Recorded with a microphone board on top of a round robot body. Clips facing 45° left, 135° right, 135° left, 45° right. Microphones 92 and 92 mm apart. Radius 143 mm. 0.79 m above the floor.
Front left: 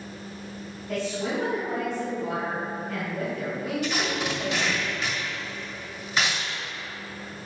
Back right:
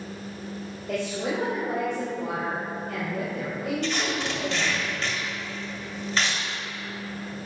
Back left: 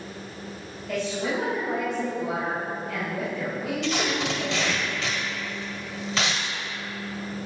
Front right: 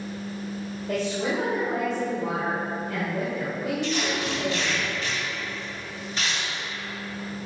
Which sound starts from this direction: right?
A woman speaking, at 0.9 s.